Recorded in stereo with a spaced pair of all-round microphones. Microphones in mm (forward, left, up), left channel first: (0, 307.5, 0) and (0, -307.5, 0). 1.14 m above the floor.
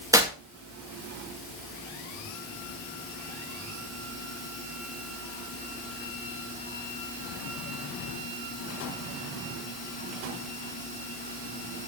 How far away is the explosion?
No explosion in this recording.